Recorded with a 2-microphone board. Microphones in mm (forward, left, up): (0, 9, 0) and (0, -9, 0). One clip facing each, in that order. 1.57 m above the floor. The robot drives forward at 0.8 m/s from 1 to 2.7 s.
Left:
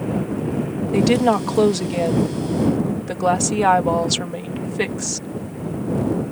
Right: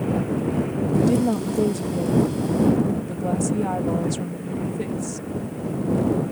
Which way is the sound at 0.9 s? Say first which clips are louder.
Left 4 dB; 70° left (ahead or behind).